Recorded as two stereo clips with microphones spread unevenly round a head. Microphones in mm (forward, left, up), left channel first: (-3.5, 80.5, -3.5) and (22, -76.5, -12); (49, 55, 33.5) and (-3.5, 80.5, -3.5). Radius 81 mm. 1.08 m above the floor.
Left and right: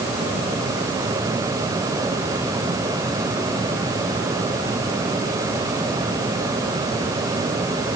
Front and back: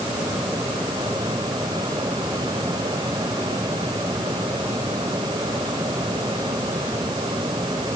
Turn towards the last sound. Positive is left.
No sound to turn to.